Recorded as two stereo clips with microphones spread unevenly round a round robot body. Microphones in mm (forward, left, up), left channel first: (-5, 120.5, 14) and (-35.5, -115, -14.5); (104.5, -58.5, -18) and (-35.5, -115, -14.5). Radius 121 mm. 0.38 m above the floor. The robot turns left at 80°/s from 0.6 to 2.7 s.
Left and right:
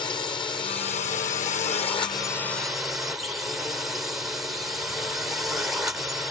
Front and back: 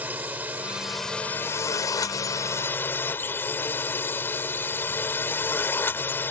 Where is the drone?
140° left; by 6.3 s 30° right.